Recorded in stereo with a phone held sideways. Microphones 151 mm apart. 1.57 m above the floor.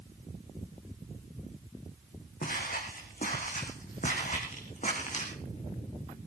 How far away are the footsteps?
About 5 m.